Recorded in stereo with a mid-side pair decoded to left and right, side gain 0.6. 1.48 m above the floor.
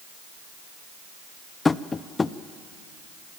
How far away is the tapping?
About 0.7 m.